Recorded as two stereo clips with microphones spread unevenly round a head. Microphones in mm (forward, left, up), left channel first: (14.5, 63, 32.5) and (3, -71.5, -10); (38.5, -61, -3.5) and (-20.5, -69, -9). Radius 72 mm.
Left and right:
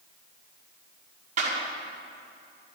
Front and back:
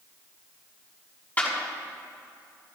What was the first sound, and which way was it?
A clap, 55° right.